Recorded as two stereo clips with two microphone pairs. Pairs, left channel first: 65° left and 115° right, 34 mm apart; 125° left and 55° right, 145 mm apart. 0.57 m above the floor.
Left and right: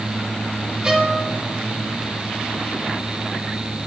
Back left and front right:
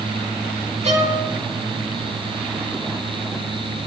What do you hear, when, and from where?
0.8 s a violin: 50° right, 1.6 m